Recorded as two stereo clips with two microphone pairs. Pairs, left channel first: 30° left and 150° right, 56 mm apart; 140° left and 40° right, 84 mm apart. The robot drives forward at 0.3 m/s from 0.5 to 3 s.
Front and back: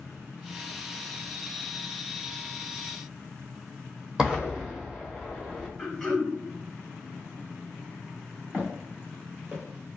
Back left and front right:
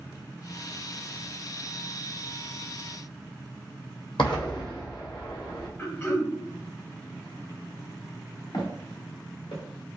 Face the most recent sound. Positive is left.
turn(degrees=140)